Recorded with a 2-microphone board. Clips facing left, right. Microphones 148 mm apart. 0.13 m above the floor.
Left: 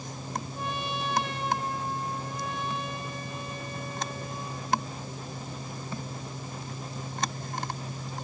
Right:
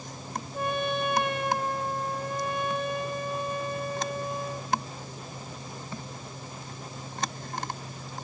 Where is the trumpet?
60° right (ahead or behind), 1.6 m.